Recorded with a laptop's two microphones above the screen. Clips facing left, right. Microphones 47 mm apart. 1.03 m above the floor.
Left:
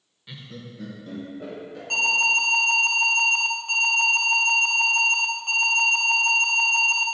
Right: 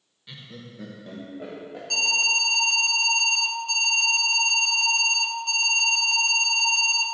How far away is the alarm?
About 0.7 m.